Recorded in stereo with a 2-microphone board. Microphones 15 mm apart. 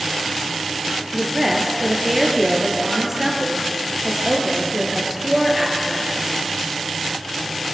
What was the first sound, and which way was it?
A woman speaking, 10° right (ahead or behind).